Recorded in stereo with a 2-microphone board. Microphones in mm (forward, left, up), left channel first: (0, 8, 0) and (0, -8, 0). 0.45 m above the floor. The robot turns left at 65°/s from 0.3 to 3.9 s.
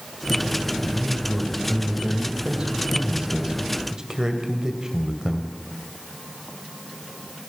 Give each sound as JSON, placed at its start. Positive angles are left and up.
{"t": 0.8, "sound": "a man speaking", "azimuth_deg": 55, "distance_m": 2.5}